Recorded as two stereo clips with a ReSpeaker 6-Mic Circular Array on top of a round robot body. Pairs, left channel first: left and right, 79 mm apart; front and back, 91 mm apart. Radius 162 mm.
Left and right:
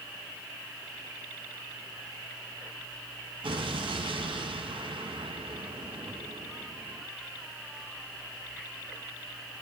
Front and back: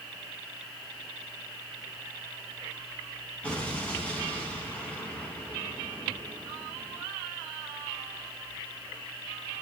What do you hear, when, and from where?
3.4 s an explosion: 80° right, 2.5 m